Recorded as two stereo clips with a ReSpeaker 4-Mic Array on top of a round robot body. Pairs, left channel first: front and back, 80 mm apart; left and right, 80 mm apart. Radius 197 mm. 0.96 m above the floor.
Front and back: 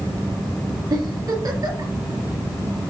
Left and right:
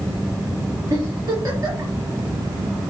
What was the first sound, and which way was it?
A giggle, 140° right.